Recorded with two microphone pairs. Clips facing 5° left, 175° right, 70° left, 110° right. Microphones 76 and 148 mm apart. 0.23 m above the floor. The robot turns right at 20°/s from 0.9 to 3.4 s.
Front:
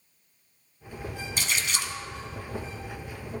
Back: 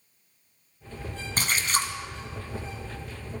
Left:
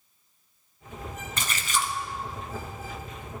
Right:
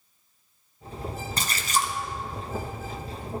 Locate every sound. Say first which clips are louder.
1.4 s a splash: back 4 dB, right 2 dB; 155° right, 1.3 m; by 1.9 s 145° right, 1.3 m